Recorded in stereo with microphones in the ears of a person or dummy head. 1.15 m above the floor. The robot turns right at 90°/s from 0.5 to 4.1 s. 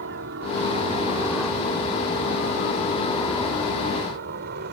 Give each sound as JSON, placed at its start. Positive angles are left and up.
{"t": 0.0, "sound": "a helicopter", "side_deg": -65}